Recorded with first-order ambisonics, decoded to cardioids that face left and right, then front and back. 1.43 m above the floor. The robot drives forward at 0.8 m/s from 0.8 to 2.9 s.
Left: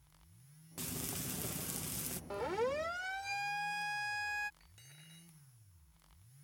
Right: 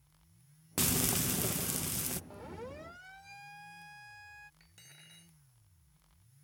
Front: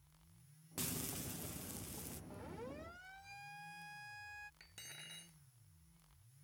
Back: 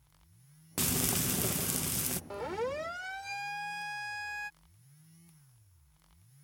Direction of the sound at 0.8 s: 130° right.